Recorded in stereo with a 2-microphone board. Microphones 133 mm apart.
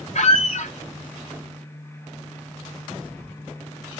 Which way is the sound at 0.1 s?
60° left (ahead or behind).